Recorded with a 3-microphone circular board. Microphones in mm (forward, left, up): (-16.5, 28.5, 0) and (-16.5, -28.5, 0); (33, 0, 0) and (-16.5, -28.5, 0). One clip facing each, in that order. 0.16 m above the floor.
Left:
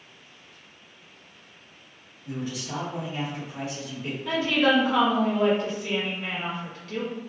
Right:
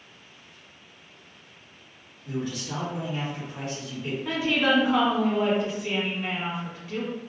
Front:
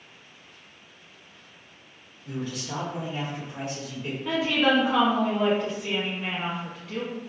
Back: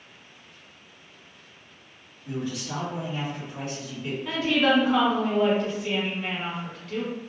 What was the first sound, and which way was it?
A man speaking, 150° left.